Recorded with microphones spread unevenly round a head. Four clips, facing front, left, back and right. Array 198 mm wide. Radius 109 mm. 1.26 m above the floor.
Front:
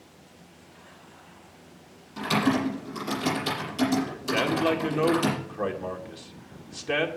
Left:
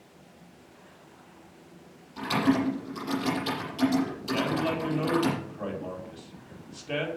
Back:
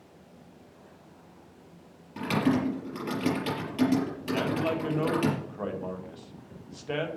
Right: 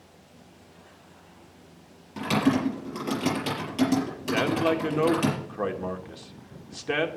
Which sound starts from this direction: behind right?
Typing on a keyboard, at 2.2 s.